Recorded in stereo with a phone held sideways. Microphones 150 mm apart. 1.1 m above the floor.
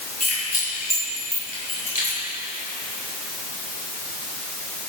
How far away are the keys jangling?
About 6 m.